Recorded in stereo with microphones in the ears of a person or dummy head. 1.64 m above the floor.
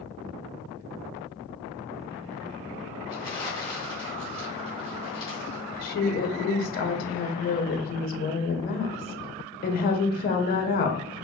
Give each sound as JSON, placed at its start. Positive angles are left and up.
{"t": 3.1, "sound": "crumpling", "side_deg": 25, "distance_m": 2.5}
{"t": 5.8, "sound": "a woman speaking", "side_deg": 45, "distance_m": 1.0}